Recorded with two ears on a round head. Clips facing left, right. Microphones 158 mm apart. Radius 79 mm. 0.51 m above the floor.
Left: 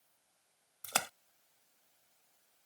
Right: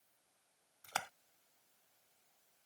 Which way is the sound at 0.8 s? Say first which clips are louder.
Left 4 dB; 60° left (ahead or behind).